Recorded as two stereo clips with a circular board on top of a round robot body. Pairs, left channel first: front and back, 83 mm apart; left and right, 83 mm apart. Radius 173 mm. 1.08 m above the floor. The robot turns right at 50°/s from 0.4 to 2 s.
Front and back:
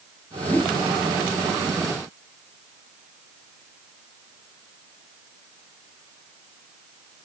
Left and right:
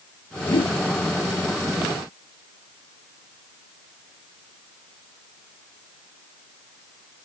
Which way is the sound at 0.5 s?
75° left.